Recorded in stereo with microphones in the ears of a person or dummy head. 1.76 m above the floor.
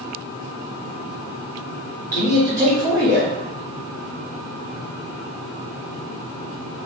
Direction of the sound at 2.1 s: 10° left (ahead or behind).